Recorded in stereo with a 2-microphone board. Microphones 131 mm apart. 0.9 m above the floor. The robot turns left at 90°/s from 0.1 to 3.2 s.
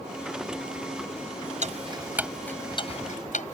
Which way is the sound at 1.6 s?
65° right (ahead or behind).